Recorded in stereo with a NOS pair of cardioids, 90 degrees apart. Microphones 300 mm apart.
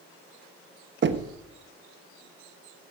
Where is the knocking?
40° right, 1.2 m.